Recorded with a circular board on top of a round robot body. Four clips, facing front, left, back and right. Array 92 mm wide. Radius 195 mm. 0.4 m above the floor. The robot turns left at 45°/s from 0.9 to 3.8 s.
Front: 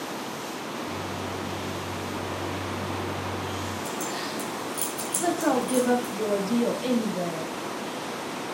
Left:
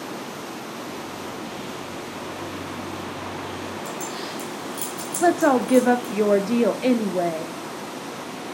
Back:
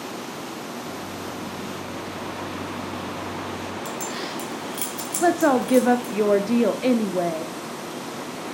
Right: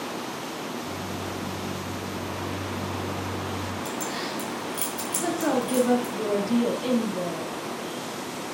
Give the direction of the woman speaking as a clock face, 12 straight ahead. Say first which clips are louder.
Left 8 dB, back 6 dB; 8 o'clock.